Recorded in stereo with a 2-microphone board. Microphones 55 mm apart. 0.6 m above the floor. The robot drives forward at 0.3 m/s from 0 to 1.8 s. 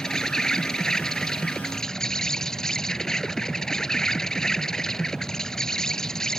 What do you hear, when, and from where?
0.0 s an insect: 10° left (ahead or behind)